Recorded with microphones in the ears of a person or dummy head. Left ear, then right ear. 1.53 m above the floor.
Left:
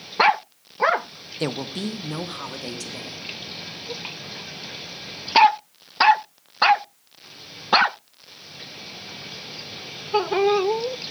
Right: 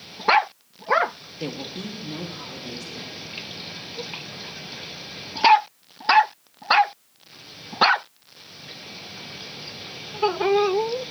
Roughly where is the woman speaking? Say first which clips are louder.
Left 5 dB; left.